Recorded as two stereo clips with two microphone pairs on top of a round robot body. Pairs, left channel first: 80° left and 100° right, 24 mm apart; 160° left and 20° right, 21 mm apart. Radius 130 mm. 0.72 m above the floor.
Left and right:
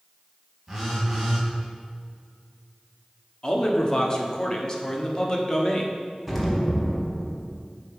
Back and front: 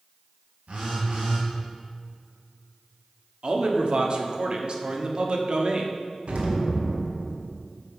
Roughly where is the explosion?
Ahead.